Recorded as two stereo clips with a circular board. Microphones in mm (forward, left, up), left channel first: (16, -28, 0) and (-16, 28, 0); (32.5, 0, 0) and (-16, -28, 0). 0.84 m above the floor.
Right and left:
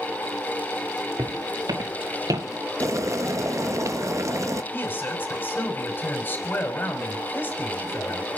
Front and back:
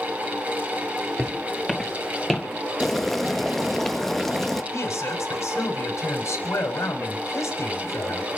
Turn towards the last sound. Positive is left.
turn(degrees=0)